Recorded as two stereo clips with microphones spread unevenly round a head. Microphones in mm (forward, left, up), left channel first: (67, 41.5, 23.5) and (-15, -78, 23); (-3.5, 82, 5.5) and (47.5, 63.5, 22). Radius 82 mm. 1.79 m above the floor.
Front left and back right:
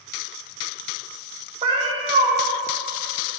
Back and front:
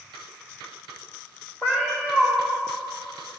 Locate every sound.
1.6 s a cat meowing: 115° right, 1.1 m